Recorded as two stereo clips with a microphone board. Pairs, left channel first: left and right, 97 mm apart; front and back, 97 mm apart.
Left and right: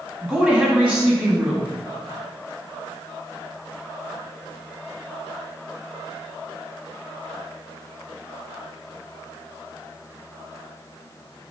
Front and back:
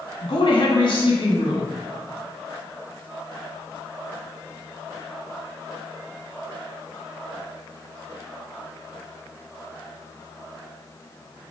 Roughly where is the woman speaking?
Ahead.